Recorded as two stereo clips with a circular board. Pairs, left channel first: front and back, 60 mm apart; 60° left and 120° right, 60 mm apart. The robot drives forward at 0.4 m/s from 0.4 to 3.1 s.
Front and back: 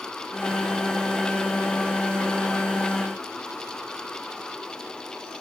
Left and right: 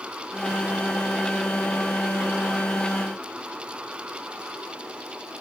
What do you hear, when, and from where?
Only background noise.